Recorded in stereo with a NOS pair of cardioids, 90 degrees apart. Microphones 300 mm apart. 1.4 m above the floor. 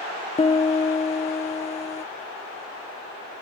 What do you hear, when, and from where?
0.4 s a piano: 20° left